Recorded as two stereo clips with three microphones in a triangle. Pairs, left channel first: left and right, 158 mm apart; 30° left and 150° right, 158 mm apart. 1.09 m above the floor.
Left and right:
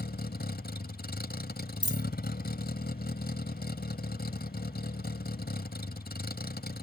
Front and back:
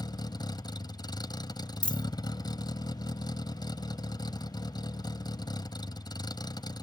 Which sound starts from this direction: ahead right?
A dropped coin, at 1.8 s.